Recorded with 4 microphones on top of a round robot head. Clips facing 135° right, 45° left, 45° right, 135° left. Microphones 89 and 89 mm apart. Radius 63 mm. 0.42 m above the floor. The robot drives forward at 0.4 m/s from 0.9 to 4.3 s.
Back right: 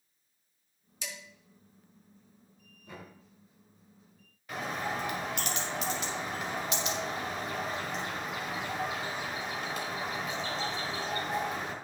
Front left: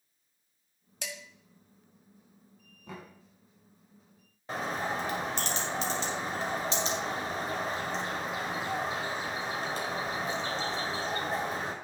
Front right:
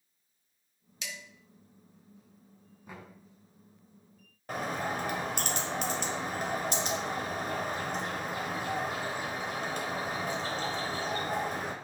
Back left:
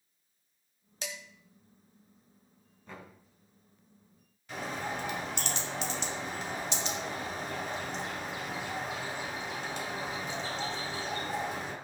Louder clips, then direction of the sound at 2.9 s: Front left 2 dB, even; 30° left.